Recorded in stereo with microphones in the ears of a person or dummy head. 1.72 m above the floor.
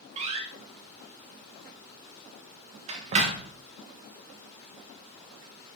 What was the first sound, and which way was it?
A door slam, 35° right (ahead or behind).